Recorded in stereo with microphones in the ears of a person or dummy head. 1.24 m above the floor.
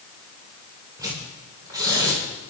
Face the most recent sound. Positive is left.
turn(degrees=-20)  # may be behind; listen again after turning